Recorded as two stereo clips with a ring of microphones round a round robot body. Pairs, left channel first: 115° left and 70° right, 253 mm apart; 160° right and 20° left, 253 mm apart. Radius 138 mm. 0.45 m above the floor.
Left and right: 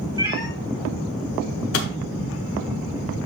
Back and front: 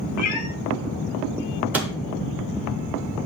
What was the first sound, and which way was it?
A cat meowing, 140° right.